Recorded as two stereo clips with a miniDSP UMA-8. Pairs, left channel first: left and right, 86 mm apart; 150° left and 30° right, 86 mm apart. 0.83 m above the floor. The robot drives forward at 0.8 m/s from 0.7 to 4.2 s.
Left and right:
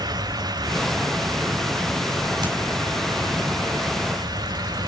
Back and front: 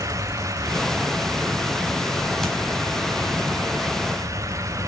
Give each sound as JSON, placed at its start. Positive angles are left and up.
{"t": 2.4, "sound": "hammering", "azimuth_deg": -125, "distance_m": 4.5}